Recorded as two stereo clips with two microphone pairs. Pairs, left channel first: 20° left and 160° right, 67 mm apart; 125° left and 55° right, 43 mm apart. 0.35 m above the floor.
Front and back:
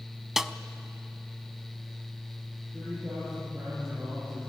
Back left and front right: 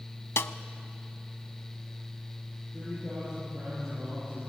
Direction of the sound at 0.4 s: 115° left.